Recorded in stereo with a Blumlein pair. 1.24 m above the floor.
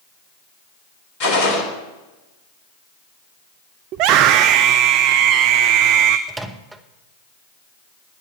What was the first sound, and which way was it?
A gunshot, 50° left.